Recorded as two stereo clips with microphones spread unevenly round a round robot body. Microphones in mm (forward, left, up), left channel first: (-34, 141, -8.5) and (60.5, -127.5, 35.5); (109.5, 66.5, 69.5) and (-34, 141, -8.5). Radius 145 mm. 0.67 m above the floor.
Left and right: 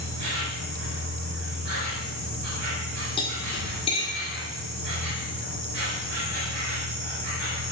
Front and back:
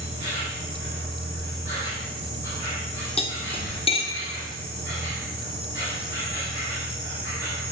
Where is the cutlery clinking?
45° left, 0.5 m.